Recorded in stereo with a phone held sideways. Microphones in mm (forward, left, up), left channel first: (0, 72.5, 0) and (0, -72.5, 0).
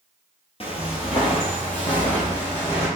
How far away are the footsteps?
About 1.2 m.